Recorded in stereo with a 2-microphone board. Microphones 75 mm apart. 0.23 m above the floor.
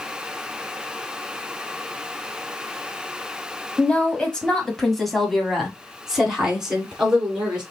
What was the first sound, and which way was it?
A woman speaking, 15° left (ahead or behind).